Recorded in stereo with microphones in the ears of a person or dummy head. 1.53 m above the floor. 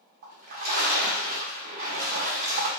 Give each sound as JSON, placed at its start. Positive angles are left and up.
{"t": 0.2, "sound": "a splash", "side_deg": -45, "distance_m": 1.1}